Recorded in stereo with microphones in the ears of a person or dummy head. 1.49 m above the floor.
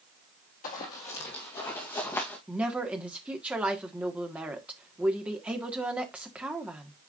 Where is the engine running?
I don't hear an engine running.